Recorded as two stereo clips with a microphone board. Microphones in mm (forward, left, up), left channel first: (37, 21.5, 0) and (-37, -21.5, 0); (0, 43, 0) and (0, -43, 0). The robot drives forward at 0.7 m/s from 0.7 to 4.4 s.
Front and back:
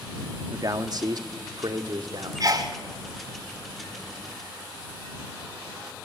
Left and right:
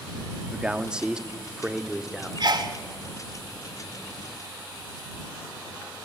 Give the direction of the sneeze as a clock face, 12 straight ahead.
4 o'clock.